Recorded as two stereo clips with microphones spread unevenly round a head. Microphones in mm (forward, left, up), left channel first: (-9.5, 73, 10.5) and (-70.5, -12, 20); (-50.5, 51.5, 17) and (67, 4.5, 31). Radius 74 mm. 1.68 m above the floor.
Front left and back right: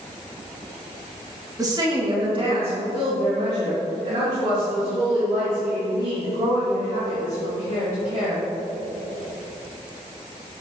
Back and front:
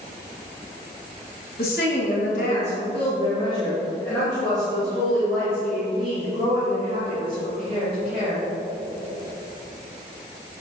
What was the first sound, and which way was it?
A woman speaking, 175° right.